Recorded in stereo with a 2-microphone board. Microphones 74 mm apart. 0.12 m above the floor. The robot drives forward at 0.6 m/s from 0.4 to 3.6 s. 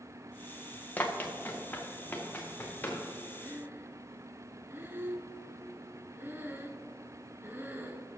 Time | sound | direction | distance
1.0 | running footsteps | 25° left (ahead or behind) | 1.4 m
3.4 | breathing | 30° right (ahead or behind) | 0.8 m